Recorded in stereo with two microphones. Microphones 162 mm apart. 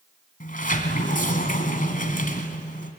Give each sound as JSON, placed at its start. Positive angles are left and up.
{"t": 0.4, "sound": "a sliding door", "side_deg": 60, "distance_m": 2.0}